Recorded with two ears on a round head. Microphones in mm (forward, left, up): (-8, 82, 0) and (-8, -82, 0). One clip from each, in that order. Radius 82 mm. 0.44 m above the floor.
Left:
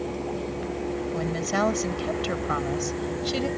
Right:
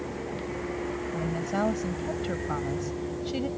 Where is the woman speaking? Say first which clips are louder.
Left 4 dB; 60° left (ahead or behind); by 3.5 s 50° left (ahead or behind).